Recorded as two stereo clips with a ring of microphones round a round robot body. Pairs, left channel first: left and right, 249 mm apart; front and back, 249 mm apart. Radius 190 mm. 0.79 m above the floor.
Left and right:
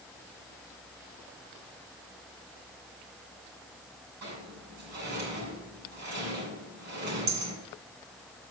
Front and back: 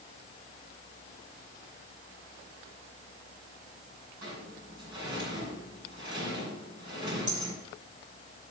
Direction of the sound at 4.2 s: 120° right.